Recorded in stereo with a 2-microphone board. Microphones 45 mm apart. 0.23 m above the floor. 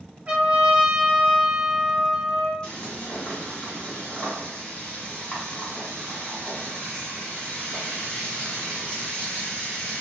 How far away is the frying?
About 1.6 m.